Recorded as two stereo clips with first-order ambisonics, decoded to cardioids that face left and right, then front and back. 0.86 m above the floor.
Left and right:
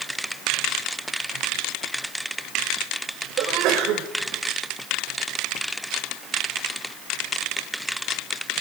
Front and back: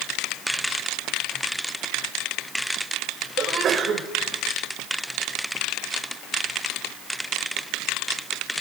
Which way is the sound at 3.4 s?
120° right.